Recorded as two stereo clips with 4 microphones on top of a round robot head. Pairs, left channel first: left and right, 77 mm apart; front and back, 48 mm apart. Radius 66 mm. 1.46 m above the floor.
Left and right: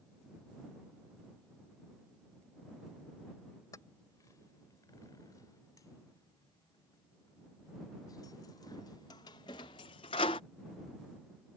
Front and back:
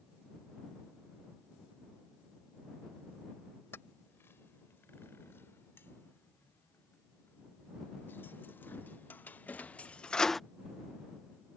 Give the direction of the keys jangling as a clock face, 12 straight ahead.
11 o'clock.